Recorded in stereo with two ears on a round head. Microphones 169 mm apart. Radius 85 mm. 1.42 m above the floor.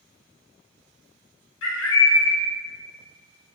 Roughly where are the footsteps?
I don't hear footsteps.